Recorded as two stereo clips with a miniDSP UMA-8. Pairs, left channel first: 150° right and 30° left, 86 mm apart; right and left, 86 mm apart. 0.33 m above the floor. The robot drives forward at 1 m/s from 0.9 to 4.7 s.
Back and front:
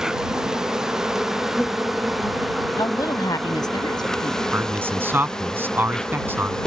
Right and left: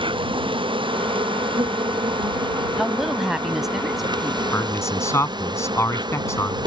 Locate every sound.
0.0 s an insect: 115° left; by 6.7 s 125° left
2.8 s a woman speaking: 175° left
4.5 s a man speaking: 35° right